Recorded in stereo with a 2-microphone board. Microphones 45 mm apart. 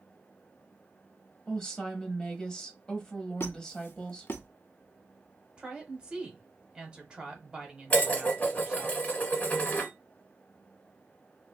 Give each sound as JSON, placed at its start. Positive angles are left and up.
{"t": 1.5, "sound": "a woman speaking", "side_deg": 20, "distance_m": 0.9}
{"t": 3.4, "sound": "a squeak", "side_deg": 65, "distance_m": 0.7}
{"t": 5.6, "sound": "a woman speaking", "side_deg": -20, "distance_m": 1.1}
{"t": 7.9, "sound": "dishes clattering", "side_deg": 35, "distance_m": 1.9}